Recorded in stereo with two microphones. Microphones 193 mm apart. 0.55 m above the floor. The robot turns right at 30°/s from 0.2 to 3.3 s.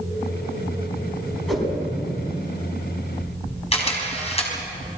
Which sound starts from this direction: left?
A camera shutter, at 3.7 s.